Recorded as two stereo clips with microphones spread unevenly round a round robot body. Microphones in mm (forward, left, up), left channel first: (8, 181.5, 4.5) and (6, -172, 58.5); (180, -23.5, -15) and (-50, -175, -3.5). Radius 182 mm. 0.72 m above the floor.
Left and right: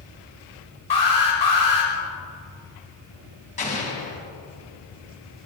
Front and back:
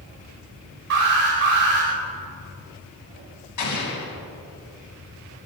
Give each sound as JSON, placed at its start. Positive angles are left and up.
{"t": 0.9, "sound": "an alarm", "azimuth_deg": 160, "distance_m": 4.5}
{"t": 3.6, "sound": "an explosion", "azimuth_deg": 20, "distance_m": 3.5}